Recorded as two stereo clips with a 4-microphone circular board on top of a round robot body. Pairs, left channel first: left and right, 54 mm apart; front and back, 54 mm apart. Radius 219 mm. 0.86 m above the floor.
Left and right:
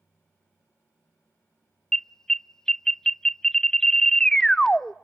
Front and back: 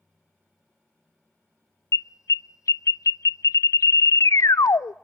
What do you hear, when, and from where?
1.9 s an alarm: 10° left, 0.5 m